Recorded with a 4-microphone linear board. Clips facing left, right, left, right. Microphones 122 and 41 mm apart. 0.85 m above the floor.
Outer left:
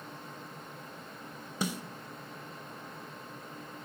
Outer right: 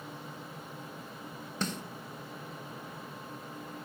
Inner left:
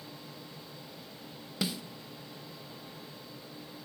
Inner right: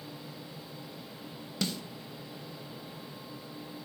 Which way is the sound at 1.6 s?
10° left (ahead or behind).